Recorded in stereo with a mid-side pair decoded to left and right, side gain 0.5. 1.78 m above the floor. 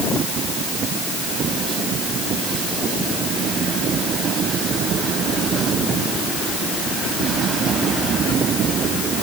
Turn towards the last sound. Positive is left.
No sound to turn to.